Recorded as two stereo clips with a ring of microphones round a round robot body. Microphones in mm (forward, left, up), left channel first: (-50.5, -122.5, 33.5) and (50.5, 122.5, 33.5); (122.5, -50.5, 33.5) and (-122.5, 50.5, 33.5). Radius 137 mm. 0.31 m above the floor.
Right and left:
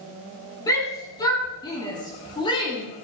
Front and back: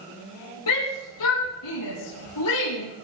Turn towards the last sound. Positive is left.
turn(degrees=-40)